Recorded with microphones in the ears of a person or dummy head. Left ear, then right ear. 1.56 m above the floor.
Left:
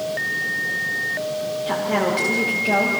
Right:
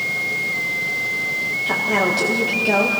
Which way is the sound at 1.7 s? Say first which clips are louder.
Right 2 dB; 10° right (ahead or behind).